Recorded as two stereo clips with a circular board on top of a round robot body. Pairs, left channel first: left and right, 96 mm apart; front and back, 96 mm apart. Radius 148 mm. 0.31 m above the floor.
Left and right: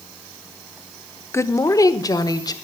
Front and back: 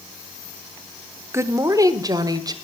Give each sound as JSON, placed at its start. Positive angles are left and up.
{"t": 1.3, "sound": "a woman speaking", "azimuth_deg": 135, "distance_m": 1.1}